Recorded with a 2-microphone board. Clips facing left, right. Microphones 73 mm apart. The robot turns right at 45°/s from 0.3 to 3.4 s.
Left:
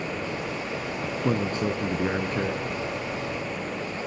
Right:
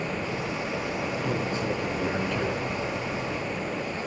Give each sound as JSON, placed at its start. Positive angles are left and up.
{"t": 1.0, "sound": "a man speaking", "azimuth_deg": 90, "distance_m": 3.0}